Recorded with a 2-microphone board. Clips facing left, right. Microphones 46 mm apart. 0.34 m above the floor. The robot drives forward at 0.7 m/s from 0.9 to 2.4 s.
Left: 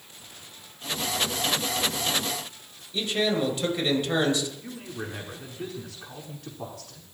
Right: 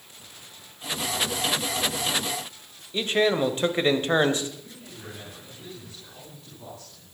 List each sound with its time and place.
2.9 s a man speaking: 35° right (ahead or behind), 1.8 m
4.6 s a man speaking: 70° left (ahead or behind), 4.5 m